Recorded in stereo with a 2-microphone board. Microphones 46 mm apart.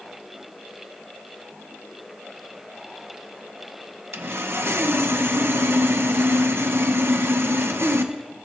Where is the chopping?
I don't hear chopping.